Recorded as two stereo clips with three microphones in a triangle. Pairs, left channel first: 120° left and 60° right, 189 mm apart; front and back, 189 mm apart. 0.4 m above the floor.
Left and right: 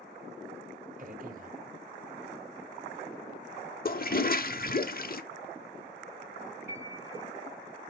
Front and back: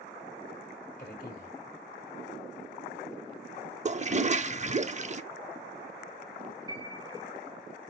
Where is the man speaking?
30° right, 1.3 m.